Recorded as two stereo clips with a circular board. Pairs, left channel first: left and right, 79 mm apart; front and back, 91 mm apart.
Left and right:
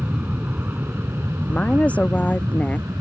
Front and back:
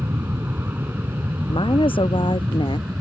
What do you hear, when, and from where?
0.0 s an aircraft: 135° right; by 3.0 s 110° right
1.5 s a woman speaking: 20° left